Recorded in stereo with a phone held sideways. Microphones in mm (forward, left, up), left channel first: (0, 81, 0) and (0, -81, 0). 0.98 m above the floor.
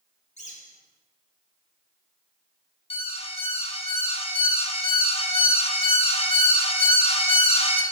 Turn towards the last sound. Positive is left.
turn(degrees=40)  # may be behind; listen again after turning